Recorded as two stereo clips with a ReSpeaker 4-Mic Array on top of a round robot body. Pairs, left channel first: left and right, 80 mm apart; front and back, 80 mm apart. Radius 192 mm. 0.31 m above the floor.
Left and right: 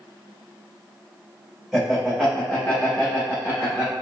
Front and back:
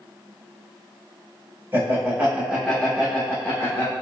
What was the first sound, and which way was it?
Laughter, 175° right.